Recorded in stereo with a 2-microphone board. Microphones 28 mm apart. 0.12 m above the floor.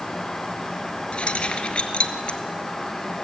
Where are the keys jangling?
45° left (ahead or behind), 1.5 m.